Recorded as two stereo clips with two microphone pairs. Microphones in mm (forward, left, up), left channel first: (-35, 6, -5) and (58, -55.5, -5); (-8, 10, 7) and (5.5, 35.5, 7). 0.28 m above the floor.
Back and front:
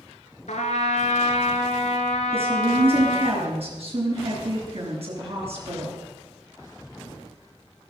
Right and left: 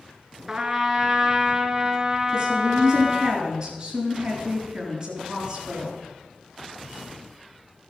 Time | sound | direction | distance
0.5 | a trumpet | 135° left | 1.3 m
2.3 | a woman speaking | 5° right | 4.5 m